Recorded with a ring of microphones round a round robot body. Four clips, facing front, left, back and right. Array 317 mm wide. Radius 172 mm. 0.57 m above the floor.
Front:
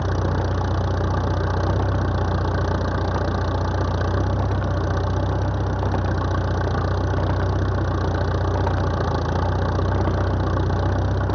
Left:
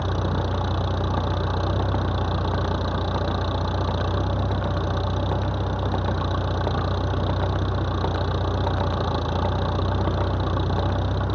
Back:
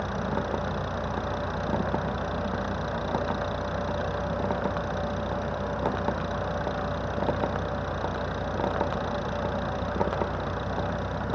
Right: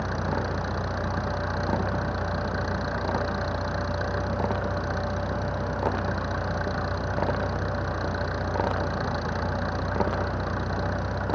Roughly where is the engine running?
Ahead.